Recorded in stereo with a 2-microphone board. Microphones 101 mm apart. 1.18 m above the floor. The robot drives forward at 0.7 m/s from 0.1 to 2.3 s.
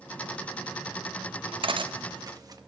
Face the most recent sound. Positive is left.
turn(degrees=-40)  # may be behind; listen again after turning